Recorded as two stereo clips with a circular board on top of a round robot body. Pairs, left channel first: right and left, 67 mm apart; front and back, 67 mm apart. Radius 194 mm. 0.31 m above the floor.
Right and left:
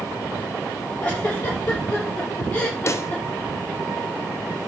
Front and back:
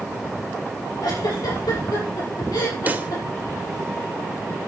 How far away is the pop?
About 1.7 m.